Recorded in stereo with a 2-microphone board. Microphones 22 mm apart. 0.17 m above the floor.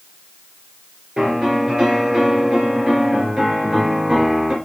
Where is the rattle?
I don't hear a rattle.